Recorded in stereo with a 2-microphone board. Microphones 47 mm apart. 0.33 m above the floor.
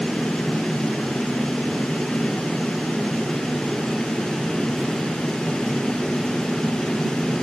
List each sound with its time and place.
Only background noise.